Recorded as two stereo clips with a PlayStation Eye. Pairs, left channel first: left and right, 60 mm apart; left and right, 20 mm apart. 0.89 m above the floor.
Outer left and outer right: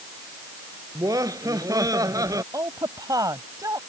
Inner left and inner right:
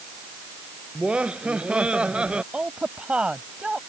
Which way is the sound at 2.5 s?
80° right.